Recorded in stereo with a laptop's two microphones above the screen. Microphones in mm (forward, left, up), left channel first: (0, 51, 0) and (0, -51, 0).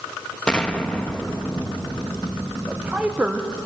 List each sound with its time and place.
0.5 s an explosion: 10° left (ahead or behind), 0.6 m
2.7 s a woman speaking: 15° right (ahead or behind), 0.7 m